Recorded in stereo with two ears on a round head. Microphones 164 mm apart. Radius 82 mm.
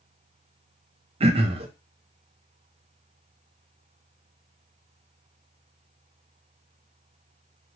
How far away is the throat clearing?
About 0.5 m.